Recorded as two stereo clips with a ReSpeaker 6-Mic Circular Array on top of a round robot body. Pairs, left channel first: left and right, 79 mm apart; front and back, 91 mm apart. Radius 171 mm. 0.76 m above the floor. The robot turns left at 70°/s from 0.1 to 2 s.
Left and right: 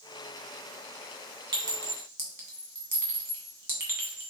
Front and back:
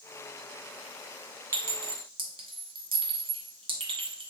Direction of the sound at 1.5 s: 120° right.